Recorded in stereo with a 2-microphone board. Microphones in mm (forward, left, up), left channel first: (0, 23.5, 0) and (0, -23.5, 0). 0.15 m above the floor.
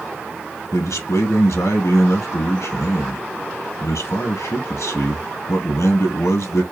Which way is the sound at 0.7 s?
70° left (ahead or behind).